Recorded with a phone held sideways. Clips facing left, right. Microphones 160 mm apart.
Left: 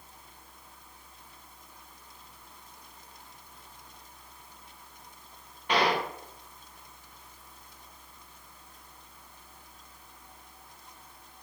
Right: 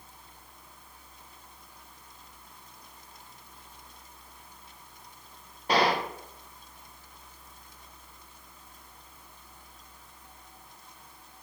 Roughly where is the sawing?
No sawing in this recording.